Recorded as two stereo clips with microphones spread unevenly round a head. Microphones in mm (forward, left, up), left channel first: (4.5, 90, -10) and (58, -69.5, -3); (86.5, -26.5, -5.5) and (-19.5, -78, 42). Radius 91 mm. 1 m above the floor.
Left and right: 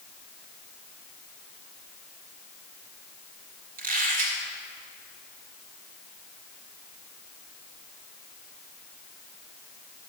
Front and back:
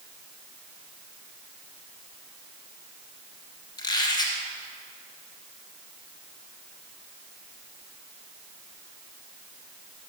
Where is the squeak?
35° right, 2.5 m.